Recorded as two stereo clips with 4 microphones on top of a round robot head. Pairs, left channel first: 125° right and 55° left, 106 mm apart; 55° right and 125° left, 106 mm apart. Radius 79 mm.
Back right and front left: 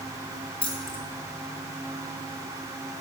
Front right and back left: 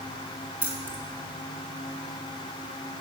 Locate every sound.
0.6 s keys jangling: 160° right, 1.8 m